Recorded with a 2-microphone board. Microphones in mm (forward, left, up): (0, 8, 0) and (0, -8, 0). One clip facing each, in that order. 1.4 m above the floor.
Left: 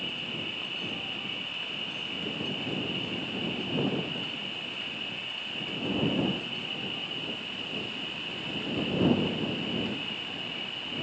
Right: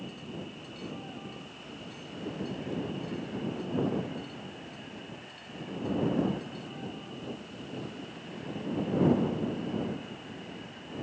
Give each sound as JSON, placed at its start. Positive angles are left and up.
{"t": 0.0, "sound": "an insect", "side_deg": 50}